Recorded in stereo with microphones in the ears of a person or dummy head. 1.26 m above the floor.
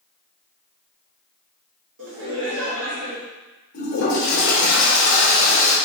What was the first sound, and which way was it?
Laughter, 75° right (ahead or behind).